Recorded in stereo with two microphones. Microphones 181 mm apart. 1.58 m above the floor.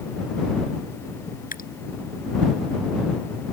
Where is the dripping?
50° left (ahead or behind).